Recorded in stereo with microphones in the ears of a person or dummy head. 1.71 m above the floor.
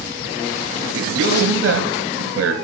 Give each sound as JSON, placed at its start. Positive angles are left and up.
{"t": 0.9, "sound": "a man speaking", "side_deg": -85, "distance_m": 1.7}